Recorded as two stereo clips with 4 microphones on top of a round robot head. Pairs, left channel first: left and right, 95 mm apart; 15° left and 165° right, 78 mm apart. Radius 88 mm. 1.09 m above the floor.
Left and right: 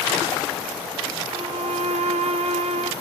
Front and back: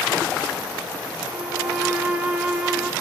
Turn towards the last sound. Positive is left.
turn(degrees=-90)